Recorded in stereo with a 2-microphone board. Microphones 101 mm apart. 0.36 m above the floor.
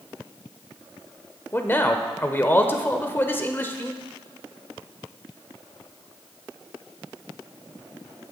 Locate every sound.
1.5 s a man speaking: 20° left (ahead or behind), 0.8 m